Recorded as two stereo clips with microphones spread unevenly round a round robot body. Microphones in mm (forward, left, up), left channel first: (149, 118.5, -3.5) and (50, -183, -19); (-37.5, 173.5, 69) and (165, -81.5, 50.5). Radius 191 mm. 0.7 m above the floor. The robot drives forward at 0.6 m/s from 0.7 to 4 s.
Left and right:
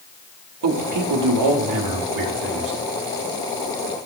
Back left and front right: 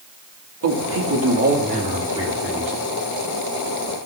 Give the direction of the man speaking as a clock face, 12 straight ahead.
3 o'clock.